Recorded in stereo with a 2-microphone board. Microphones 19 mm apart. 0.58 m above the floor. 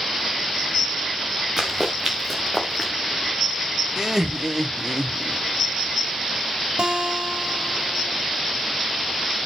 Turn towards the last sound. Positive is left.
turn(degrees=-65)  # may be behind; listen again after turning